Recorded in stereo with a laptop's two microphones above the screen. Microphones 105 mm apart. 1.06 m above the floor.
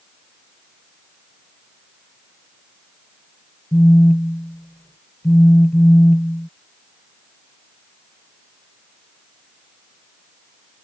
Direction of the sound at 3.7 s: 20° left (ahead or behind).